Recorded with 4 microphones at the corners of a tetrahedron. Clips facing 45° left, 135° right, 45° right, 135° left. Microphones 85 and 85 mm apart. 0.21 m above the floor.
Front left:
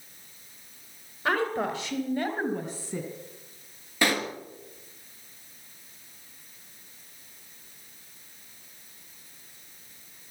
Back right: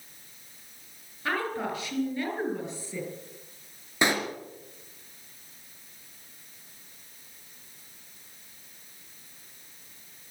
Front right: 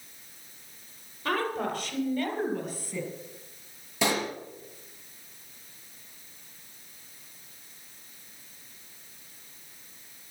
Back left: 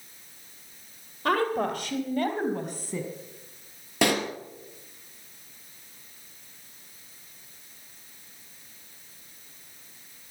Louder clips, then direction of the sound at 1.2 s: Front left 3 dB, back left 4 dB; 110° left.